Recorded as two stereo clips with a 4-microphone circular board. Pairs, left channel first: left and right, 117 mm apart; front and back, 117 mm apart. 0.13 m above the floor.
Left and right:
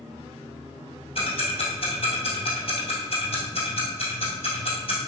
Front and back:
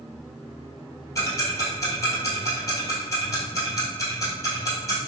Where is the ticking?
60° left, 1.7 m.